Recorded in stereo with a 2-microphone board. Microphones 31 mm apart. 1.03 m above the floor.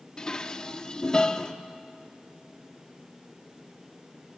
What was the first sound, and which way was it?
Dishes clattering, 30° left (ahead or behind).